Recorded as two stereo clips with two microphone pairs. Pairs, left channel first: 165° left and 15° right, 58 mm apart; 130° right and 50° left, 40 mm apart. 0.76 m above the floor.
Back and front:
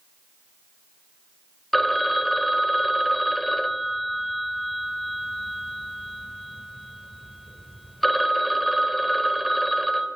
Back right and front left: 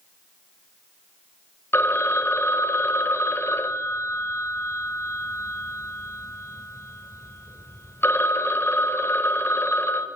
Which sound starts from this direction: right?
A phone ringing, at 1.7 s.